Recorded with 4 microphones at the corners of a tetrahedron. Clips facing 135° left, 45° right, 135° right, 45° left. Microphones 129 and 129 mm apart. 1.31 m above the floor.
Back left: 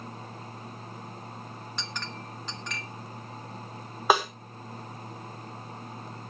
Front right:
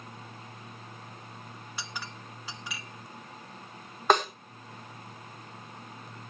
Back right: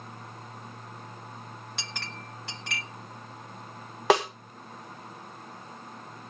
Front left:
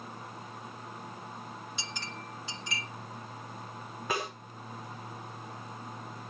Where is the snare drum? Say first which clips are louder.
Even, back right 12 dB; 140° right, 1.2 m.